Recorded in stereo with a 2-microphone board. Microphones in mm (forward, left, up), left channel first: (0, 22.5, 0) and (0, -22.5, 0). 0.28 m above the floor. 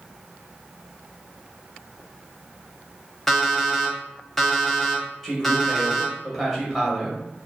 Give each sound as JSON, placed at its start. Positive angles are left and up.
{"t": 3.3, "sound": "an alarm clock", "side_deg": 5, "distance_m": 0.5}
{"t": 5.2, "sound": "a man speaking", "side_deg": 0, "distance_m": 1.0}